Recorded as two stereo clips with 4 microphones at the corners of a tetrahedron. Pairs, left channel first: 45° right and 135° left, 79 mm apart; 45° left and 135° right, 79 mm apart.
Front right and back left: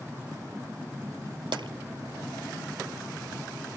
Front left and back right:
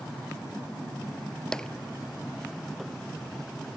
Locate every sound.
1.5 s tapping: 130° left